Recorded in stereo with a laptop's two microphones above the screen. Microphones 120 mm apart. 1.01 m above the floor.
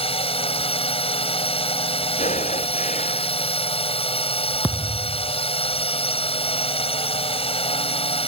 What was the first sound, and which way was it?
A drone, 55° left (ahead or behind).